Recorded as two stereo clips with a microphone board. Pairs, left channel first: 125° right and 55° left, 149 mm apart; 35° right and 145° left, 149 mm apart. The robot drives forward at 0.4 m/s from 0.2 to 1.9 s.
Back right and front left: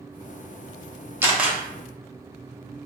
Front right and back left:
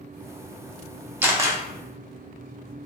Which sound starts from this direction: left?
A camera shutter, at 1.2 s.